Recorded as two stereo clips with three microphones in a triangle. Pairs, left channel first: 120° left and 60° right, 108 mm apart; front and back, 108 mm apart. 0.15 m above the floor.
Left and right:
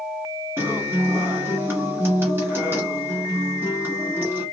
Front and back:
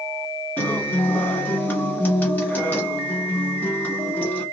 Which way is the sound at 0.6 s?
50° right.